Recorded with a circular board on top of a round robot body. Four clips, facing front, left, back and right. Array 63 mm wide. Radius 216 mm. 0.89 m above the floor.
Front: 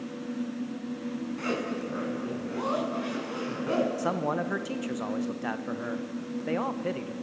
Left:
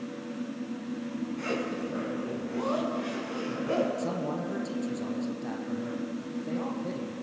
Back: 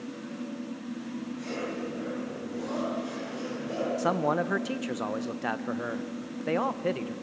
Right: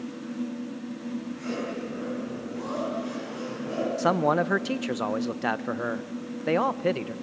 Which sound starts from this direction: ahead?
A zipper, at 1.4 s.